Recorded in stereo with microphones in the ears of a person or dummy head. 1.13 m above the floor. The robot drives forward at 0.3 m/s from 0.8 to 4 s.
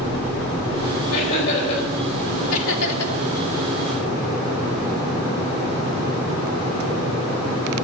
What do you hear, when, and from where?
1.1 s laughter: 60° left (ahead or behind), 5 m; by 1.8 s 65° left (ahead or behind), 5 m
2.5 s laughter: 80° left, 1.5 m; by 3.1 s 70° left (ahead or behind), 1.5 m